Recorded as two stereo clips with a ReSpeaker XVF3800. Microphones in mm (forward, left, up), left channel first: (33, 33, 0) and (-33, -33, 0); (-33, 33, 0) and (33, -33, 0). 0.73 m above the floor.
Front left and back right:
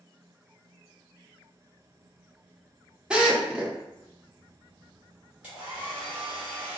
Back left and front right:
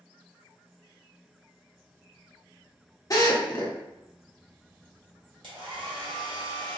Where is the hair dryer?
60° right, 1.7 m.